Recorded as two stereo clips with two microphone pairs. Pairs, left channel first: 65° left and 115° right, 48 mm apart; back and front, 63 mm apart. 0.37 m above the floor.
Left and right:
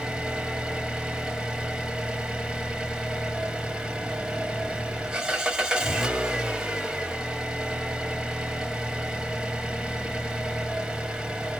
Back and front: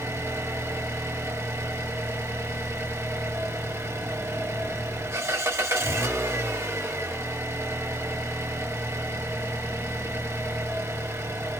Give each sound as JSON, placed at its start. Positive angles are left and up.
{"t": 0.0, "sound": "an engine running", "azimuth_deg": -40, "distance_m": 0.9}